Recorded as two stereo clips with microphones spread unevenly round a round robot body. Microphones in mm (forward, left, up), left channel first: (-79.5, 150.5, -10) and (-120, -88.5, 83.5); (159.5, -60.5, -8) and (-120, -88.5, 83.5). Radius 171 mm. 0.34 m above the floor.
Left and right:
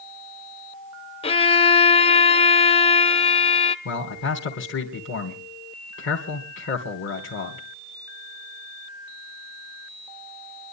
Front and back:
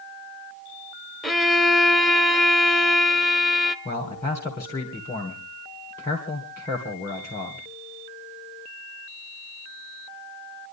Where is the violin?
75° left, 0.7 m.